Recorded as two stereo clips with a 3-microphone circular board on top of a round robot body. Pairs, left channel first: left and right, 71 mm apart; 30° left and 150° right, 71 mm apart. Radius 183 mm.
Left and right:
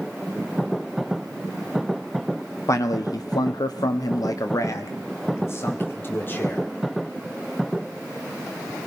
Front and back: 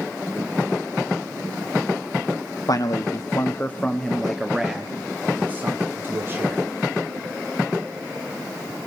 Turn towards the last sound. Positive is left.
turn(degrees=150)